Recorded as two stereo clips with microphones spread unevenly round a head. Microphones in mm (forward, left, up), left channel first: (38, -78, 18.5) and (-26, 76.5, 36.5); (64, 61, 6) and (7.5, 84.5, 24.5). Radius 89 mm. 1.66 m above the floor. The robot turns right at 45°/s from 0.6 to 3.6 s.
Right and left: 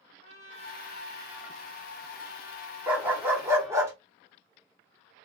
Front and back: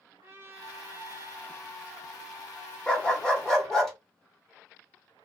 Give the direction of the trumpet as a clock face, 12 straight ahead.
7 o'clock.